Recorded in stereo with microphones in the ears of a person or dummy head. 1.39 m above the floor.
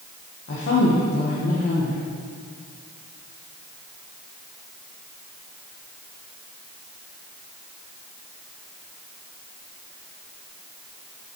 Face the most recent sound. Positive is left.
turn(degrees=55)  # may be behind; listen again after turning